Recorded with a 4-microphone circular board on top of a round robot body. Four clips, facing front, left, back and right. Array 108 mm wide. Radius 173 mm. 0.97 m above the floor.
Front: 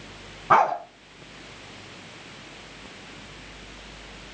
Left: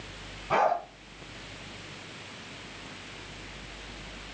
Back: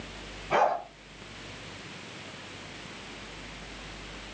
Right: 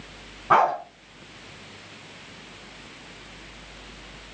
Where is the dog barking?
40° right, 5 m.